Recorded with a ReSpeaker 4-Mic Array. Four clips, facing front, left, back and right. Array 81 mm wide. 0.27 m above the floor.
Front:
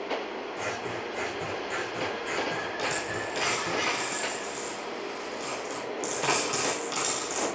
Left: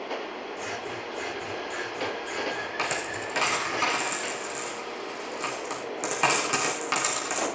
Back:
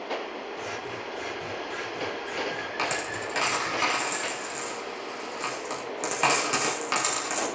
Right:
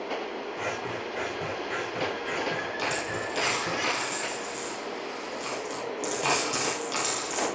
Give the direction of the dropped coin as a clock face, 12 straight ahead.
8 o'clock.